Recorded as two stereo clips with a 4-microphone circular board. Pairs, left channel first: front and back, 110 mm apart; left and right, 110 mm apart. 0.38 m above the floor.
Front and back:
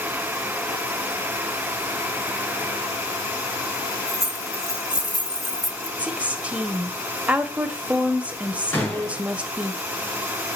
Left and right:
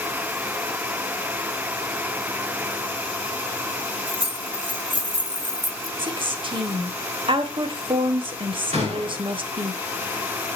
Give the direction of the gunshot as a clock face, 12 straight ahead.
2 o'clock.